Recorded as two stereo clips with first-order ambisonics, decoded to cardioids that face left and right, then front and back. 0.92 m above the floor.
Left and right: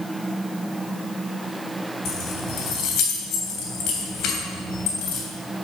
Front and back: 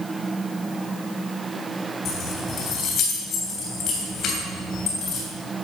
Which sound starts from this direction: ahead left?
Keys jangling, at 2.0 s.